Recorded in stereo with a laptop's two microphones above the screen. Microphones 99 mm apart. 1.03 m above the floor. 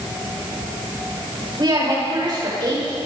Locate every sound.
1.6 s a woman speaking: 50° right (ahead or behind), 5 m